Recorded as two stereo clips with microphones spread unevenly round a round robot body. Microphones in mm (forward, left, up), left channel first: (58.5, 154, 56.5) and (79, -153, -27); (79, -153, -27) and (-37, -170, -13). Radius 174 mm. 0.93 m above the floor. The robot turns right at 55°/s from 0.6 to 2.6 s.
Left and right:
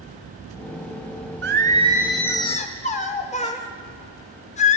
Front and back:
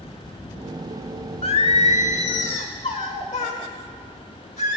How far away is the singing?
About 0.9 m.